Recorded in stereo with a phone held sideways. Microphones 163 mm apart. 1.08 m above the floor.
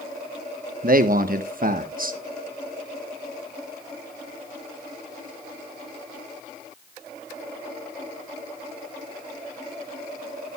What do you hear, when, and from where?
0.8 s a man speaking: 60° right (ahead or behind), 1.1 m